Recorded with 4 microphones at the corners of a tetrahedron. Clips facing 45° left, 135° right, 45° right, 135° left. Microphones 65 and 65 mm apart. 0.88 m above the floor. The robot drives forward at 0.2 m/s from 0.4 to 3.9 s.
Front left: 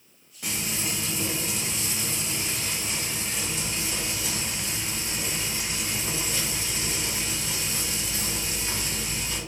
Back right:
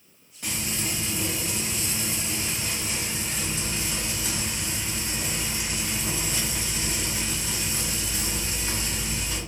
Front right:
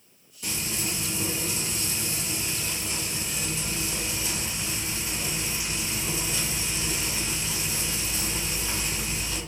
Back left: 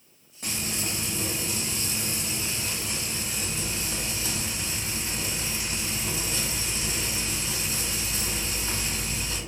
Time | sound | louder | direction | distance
0.4 | frying | even, even | 130° left | 1.1 m